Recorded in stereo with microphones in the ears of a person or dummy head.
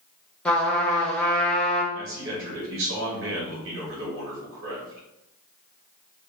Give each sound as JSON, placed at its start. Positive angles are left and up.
{"t": 0.5, "sound": "a trumpet", "side_deg": 10, "distance_m": 0.8}
{"t": 1.9, "sound": "a man speaking", "side_deg": -65, "distance_m": 1.2}